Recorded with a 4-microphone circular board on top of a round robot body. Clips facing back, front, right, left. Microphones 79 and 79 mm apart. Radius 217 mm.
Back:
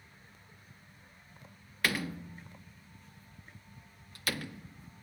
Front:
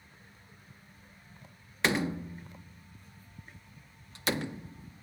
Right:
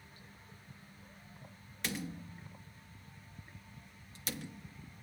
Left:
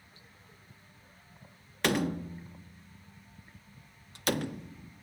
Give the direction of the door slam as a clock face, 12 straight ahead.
10 o'clock.